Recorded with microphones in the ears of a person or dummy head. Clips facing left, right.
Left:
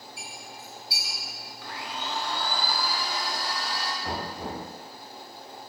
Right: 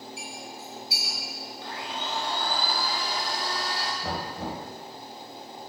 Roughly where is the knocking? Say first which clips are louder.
Right 1 dB; right.